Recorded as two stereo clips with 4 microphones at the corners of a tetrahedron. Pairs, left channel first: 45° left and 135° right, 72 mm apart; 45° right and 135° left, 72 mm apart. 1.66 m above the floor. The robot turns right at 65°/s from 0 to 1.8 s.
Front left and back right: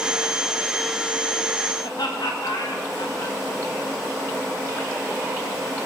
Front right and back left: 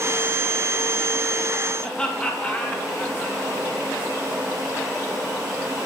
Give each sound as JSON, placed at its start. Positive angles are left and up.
{"t": 1.8, "sound": "laughter", "azimuth_deg": 30, "distance_m": 1.7}